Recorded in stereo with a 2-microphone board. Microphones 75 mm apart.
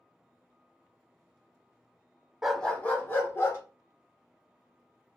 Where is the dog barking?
10° right (ahead or behind), 0.6 m; by 3.6 s 35° left (ahead or behind), 2.0 m.